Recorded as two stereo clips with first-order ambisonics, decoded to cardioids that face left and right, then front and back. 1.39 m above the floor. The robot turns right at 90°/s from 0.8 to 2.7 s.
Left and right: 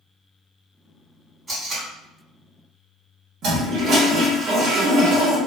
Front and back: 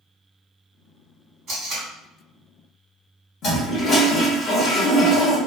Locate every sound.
1.5 s tape being pulled: 160° right, 1.5 m; by 1.9 s 125° right, 1.5 m
3.4 s a toilet flushing: 50° right, 1.0 m